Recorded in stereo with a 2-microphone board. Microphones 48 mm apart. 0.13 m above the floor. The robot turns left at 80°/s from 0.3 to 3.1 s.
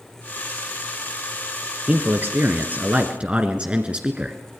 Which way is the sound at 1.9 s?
40° right.